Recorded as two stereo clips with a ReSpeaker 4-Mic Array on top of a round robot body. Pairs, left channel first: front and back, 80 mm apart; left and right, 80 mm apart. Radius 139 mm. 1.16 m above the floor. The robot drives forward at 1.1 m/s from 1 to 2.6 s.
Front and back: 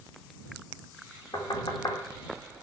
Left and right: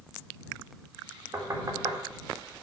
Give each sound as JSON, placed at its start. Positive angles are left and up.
{"t": 1.3, "sound": "knocking", "azimuth_deg": -35, "distance_m": 2.5}